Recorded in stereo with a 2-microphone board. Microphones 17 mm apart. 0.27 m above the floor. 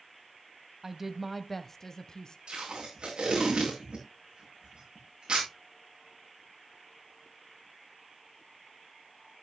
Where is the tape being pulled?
80° right, 8 m.